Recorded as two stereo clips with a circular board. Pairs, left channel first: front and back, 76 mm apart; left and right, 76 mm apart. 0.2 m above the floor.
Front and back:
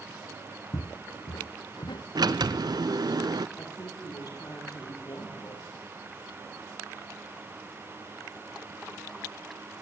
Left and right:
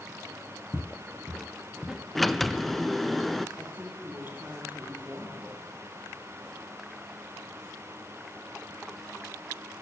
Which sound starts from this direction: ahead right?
A woman speaking, at 3.6 s.